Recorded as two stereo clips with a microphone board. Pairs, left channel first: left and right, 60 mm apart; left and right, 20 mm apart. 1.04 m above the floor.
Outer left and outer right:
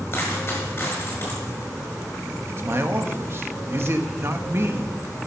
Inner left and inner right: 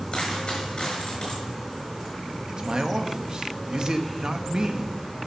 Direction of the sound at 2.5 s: 40° right (ahead or behind).